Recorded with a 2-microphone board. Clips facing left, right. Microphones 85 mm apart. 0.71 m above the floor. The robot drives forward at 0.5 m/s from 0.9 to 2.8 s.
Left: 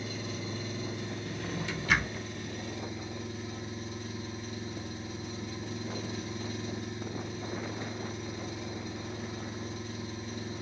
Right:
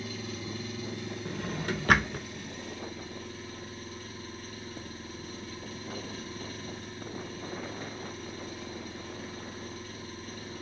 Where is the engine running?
25° left (ahead or behind), 2.5 m; by 10.6 s 20° left (ahead or behind), 3.5 m.